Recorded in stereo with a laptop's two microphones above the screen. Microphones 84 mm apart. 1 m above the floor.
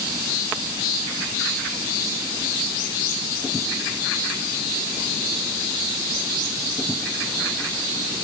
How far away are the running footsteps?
No running footsteps in this recording.